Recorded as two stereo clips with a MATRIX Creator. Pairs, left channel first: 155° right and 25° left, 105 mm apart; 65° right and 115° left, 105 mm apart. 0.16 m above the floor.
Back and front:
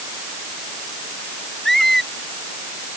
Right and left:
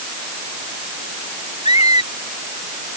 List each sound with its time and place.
1.6 s a squeak: 70° right